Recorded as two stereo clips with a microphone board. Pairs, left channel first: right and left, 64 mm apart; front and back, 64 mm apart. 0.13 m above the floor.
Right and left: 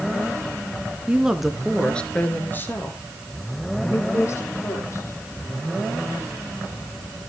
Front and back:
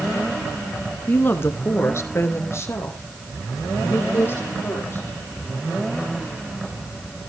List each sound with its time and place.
1.1 s a woman speaking: 35° left, 1.4 m; by 5.2 s 50° right, 5 m